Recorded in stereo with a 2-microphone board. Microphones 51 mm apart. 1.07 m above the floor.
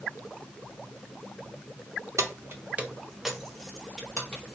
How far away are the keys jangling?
About 0.6 m.